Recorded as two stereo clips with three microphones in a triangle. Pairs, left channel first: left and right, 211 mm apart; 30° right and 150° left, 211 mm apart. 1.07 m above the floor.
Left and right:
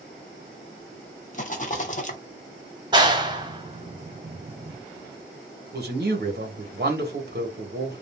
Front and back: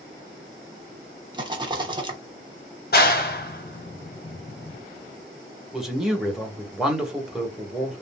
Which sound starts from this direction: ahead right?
A clap, at 2.9 s.